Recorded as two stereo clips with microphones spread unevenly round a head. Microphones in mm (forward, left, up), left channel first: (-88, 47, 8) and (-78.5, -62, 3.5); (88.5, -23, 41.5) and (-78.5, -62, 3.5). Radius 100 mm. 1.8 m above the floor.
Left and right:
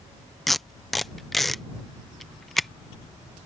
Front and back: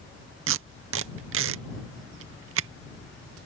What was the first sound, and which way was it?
Tape being pulled, 175° right.